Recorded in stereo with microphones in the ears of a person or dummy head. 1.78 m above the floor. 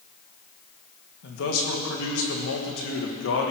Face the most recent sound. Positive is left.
turn(degrees=75)  # may be behind; listen again after turning